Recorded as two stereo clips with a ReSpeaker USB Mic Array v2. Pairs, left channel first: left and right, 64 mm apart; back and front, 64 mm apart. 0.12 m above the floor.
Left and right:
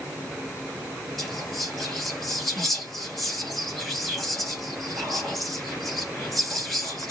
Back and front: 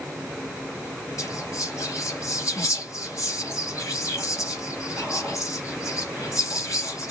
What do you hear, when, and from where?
1.2 s whispering: 175° left, 2.5 m